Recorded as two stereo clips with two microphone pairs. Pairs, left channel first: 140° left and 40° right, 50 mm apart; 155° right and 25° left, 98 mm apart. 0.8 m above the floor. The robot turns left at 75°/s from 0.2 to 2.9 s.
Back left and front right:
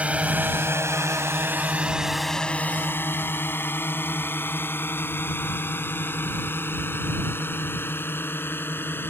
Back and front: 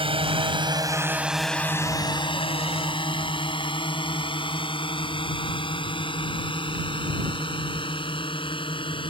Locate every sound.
0.0 s a drone: 25° left; by 9.1 s straight behind